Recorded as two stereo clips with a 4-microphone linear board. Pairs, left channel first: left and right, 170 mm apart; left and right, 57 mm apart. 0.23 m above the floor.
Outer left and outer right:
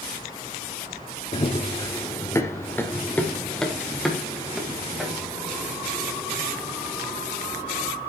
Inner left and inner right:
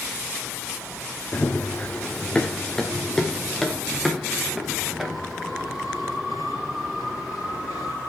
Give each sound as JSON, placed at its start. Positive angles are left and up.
{"t": 1.3, "sound": "running footsteps", "side_deg": 35, "distance_m": 1.6}